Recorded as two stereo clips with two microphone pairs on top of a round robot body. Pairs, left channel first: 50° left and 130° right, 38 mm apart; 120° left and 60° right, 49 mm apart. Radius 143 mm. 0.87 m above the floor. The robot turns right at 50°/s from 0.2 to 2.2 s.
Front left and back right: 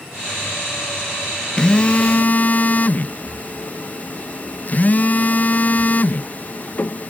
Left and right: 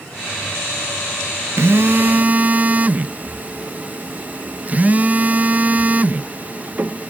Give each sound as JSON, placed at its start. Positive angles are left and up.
{"t": 1.6, "sound": "a phone buzzing", "azimuth_deg": -25}